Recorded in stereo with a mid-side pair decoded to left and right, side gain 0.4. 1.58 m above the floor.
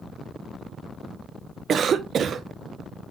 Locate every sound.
1.7 s a cough: 60° right, 0.7 m